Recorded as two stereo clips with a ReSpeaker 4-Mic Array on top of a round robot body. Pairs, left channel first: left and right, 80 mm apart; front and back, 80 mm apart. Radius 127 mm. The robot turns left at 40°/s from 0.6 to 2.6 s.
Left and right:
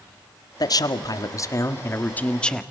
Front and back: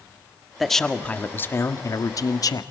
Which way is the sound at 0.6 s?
90° left.